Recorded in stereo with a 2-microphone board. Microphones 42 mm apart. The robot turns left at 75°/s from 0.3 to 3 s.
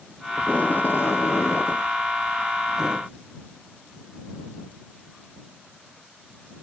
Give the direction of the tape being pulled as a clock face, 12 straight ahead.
7 o'clock.